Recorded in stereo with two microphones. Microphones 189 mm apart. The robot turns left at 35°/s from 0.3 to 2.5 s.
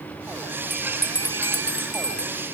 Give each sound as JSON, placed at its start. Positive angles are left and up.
{"t": 0.7, "sound": "a bell", "azimuth_deg": 180, "distance_m": 0.8}